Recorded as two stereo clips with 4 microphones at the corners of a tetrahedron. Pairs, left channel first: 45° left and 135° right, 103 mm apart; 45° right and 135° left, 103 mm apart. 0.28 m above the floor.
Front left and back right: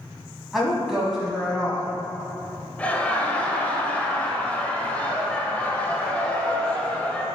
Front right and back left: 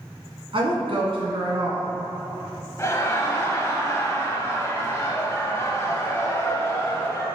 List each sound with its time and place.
0.5 s a woman speaking: 135° left, 1.8 m
2.8 s laughter: 20° right, 1.0 m